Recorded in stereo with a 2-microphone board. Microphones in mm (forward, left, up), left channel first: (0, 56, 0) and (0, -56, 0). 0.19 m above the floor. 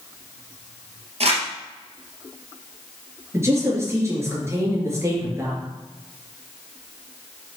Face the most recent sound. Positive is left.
turn(degrees=-25)  # may be behind; listen again after turning